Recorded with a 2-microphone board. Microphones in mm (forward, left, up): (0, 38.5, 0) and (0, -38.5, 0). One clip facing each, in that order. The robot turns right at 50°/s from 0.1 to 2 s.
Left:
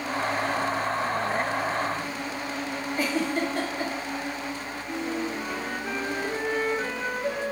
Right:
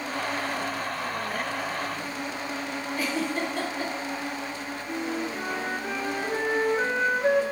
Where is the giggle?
45° left (ahead or behind), 1.8 m.